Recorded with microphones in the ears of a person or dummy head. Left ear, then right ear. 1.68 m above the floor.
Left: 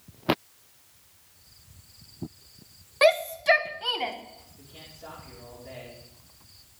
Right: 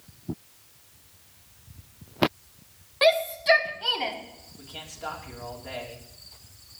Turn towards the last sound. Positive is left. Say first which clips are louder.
# right 10 dB
turn(degrees=-45)  # may be behind; listen again after turning